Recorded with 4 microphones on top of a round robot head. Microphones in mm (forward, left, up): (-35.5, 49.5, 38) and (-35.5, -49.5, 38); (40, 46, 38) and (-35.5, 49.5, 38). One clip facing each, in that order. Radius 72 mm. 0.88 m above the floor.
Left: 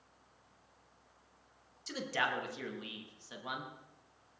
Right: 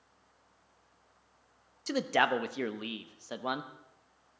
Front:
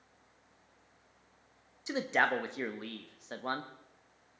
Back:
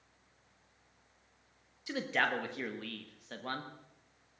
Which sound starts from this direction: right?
A man speaking, at 1.9 s.